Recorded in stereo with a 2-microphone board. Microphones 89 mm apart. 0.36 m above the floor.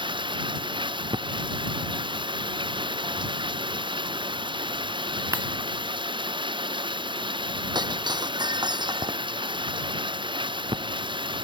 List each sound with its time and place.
0.0 s running water: 65° right (ahead or behind)
5.3 s breaking glass: 35° right (ahead or behind)
7.8 s breaking glass: 55° right (ahead or behind)